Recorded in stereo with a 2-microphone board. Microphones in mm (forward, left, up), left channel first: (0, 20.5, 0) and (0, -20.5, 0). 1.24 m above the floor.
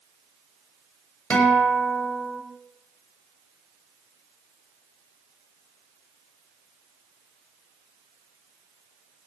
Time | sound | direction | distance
1.3 | a guitar | 35° left (ahead or behind) | 4.5 m